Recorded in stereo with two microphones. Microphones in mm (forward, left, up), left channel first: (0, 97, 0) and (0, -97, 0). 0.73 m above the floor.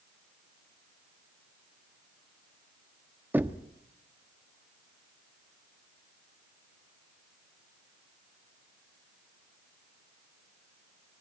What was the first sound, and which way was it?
Knocking, 10° right (ahead or behind).